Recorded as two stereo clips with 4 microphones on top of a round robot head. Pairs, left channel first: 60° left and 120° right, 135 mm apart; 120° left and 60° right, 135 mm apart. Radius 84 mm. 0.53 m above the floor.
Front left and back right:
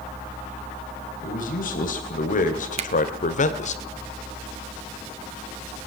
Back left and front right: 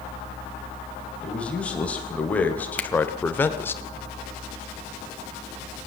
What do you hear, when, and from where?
1.2 s a man speaking: 40° left, 3.5 m; by 3.8 s 50° left, 1.6 m
2.8 s a finger snap: 160° right, 1.4 m